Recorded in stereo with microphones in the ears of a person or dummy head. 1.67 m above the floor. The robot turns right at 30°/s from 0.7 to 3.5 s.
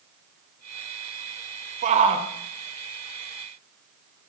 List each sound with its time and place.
1.8 s a shout: 40° right (ahead or behind), 1.2 m; by 2.3 s 25° right (ahead or behind), 1.2 m